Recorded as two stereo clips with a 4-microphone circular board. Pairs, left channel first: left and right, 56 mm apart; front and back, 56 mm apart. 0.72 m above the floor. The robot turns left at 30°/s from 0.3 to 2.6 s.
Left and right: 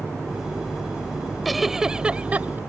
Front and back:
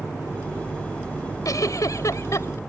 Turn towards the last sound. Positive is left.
turn(degrees=-35)